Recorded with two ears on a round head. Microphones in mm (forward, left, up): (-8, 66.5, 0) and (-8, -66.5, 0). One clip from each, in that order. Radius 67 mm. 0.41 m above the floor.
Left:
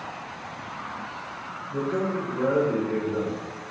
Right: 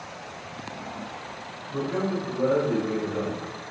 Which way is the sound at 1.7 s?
25° right (ahead or behind).